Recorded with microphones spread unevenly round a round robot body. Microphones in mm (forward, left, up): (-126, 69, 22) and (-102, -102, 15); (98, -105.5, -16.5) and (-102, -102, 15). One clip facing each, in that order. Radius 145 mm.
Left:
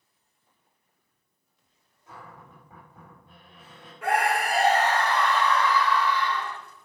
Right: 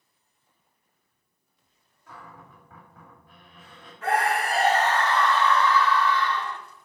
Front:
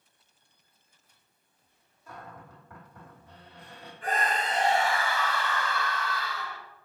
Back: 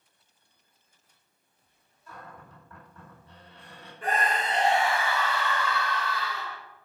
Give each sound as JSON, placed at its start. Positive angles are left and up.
{"t": 2.1, "sound": "a cupboard door", "azimuth_deg": 20, "distance_m": 3.0}
{"t": 4.0, "sound": "a scream", "azimuth_deg": 175, "distance_m": 1.7}